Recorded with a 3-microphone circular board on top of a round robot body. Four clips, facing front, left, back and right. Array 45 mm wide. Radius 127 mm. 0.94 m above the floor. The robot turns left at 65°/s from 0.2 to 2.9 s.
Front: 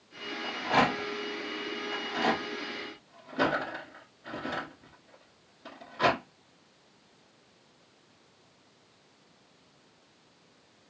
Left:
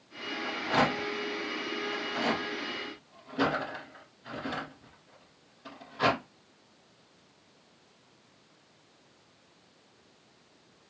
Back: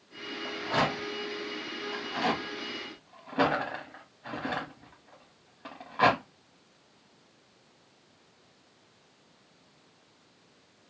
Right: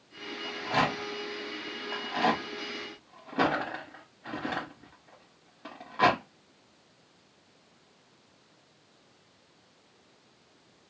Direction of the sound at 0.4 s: 20° left.